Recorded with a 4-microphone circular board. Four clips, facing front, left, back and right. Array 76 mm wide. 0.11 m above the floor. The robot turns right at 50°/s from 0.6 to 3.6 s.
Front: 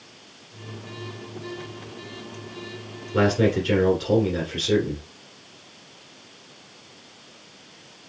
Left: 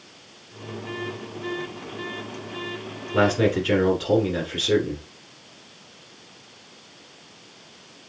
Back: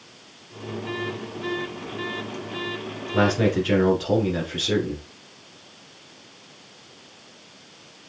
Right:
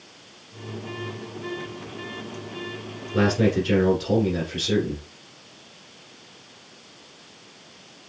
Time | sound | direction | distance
3.1 | a man speaking | 85° left | 1.2 m